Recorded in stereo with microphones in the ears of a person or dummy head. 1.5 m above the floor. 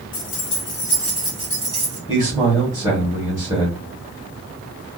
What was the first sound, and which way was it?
Keys jangling, 45° left (ahead or behind).